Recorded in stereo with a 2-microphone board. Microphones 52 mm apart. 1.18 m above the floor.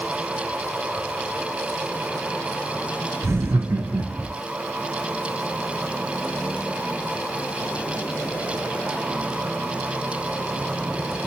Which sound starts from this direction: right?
Laughter, at 3.2 s.